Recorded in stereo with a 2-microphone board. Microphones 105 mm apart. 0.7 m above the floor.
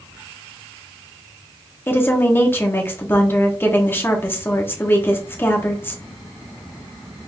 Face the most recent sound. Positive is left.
turn(degrees=20)  # may be behind; listen again after turning